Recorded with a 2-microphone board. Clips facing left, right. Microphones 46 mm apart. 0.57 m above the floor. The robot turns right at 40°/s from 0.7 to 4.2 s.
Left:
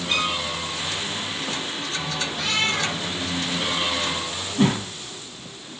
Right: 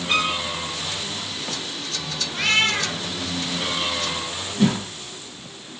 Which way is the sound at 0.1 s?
45° right (ahead or behind).